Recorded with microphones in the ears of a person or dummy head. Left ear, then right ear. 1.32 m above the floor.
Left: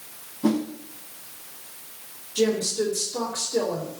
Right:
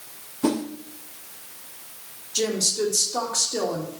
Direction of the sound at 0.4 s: 60° right (ahead or behind).